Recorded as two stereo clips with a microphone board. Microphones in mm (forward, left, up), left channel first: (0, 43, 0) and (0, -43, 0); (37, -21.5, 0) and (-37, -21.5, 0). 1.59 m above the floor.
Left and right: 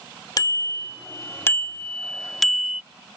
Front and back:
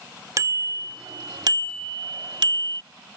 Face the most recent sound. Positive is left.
turn(degrees=-170)